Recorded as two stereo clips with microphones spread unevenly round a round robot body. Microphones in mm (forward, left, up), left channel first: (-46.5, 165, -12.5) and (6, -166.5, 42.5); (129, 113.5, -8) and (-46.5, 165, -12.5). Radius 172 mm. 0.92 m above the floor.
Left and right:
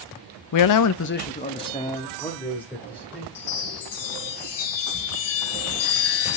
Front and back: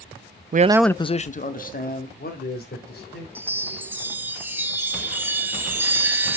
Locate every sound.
0.5 s a man speaking: 125° left, 0.5 m; by 3.2 s 15° left, 3.5 m
3.4 s a chime: 85° left, 1.5 m